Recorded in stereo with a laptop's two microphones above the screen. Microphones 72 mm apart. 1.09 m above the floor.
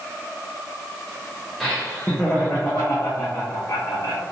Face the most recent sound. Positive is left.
turn(degrees=55)  # may be behind; listen again after turning